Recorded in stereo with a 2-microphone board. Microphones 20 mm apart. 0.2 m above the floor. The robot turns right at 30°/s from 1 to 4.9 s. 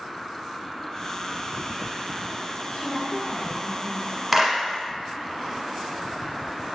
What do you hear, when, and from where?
2.7 s a woman speaking: 70° left, 1.2 m; by 4.2 s 115° left, 1.2 m
4.3 s a clap: 10° right (ahead or behind), 1.1 m; by 4.6 s 5° right (ahead or behind), 1.1 m